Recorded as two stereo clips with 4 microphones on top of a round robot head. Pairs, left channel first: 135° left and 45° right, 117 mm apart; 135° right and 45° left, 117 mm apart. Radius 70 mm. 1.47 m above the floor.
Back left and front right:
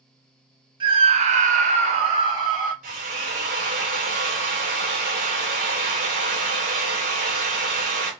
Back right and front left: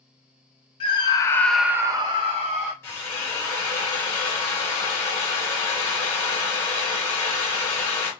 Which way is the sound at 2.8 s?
65° right.